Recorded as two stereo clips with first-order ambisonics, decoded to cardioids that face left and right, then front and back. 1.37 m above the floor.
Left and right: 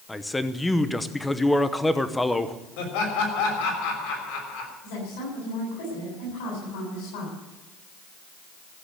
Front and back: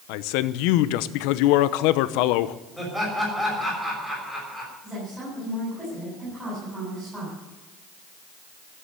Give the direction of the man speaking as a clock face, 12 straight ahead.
12 o'clock.